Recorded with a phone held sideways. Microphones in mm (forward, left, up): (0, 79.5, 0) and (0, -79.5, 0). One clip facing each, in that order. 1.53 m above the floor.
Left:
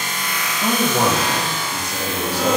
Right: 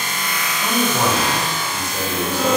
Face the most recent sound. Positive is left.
turn(degrees=70)  # may be behind; listen again after turning